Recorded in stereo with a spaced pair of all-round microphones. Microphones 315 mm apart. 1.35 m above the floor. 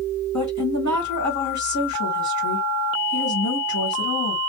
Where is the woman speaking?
65° left (ahead or behind), 2 m.